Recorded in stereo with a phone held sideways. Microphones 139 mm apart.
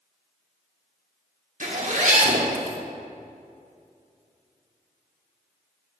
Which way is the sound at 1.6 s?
65° right (ahead or behind).